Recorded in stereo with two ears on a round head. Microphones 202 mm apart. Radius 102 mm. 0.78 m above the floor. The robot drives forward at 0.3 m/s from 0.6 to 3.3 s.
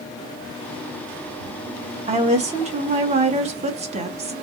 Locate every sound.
2.1 s a woman speaking: 30° right (ahead or behind), 0.6 m